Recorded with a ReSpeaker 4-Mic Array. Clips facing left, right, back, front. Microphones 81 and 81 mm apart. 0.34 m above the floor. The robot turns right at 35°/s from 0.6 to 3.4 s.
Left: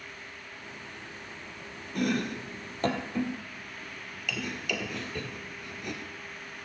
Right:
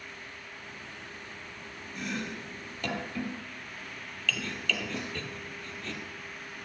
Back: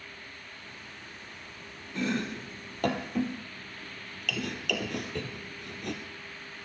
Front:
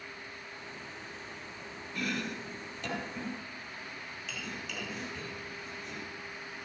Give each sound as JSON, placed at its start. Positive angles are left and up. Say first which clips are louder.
{"t": 1.9, "sound": "chopping", "louder": "left 7 dB, back 5 dB", "azimuth_deg": 115, "distance_m": 2.0}
{"t": 4.9, "sound": "a snare drum", "louder": "right 1 dB, back 4 dB", "azimuth_deg": -160, "distance_m": 3.0}